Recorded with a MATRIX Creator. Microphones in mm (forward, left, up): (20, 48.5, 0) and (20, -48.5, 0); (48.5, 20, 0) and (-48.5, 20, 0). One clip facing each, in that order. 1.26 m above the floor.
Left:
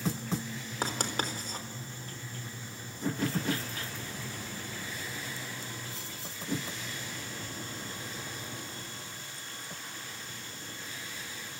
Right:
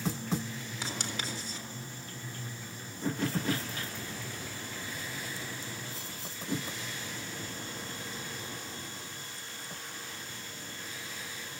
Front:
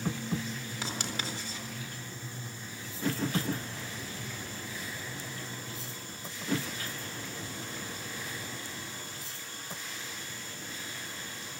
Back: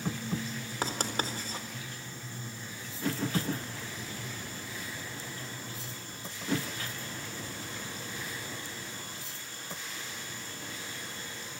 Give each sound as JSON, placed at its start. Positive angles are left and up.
{"t": 0.8, "sound": "writing", "azimuth_deg": 135, "distance_m": 4.0}